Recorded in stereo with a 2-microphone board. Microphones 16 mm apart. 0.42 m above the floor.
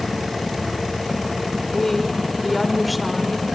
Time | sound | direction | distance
1.7 | a woman speaking | 25° left (ahead or behind) | 1.6 m